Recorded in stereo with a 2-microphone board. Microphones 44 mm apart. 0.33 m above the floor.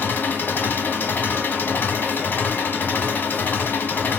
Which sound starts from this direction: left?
An engine running, at 0.0 s.